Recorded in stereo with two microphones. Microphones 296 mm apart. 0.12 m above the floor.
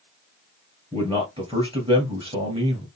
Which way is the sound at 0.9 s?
20° right (ahead or behind).